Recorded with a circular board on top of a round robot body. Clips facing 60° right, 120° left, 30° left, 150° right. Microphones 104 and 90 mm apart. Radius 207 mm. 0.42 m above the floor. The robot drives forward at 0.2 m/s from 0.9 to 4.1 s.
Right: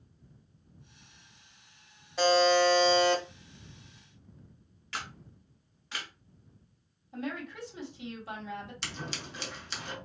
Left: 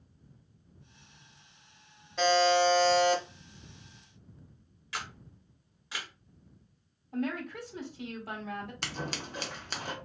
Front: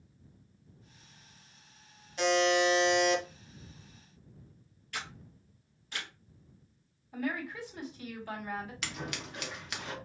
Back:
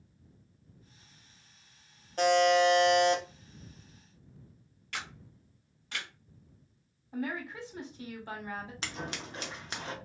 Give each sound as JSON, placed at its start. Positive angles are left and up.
{"t": 2.2, "sound": "a buzzer", "azimuth_deg": -140, "distance_m": 1.2}
{"t": 4.9, "sound": "a camera shutter", "azimuth_deg": -160, "distance_m": 1.1}
{"t": 7.1, "sound": "a woman speaking", "azimuth_deg": 150, "distance_m": 1.8}
{"t": 8.8, "sound": "scissors", "azimuth_deg": 155, "distance_m": 0.8}